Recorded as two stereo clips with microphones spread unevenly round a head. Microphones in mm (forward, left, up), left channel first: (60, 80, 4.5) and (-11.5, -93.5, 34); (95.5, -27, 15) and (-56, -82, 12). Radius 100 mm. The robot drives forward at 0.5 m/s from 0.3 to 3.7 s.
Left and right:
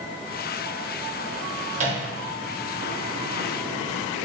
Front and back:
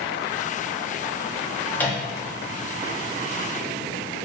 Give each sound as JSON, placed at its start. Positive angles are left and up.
{"t": 1.7, "sound": "a microwave", "azimuth_deg": -60, "distance_m": 1.0}